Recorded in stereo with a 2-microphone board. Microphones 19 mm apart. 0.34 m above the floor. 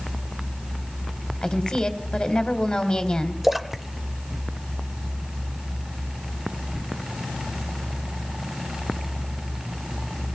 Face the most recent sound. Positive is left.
turn(degrees=-15)  # may be behind; listen again after turning